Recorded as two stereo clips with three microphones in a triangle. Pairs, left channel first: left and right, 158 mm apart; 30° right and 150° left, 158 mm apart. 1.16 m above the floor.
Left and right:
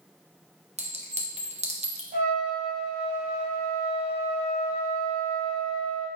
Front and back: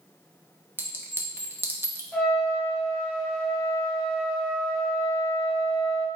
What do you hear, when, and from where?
0.8 s a clink: 130° right, 0.7 m
2.1 s a trumpet: 115° right, 2 m